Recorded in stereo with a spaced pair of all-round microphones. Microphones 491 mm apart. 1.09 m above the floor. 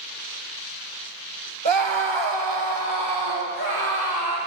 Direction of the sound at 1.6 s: 60° right (ahead or behind).